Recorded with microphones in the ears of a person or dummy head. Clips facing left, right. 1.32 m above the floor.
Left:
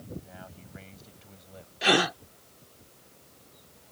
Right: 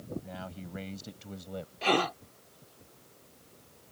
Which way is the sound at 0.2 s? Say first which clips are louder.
Right 5 dB; 60° right (ahead or behind).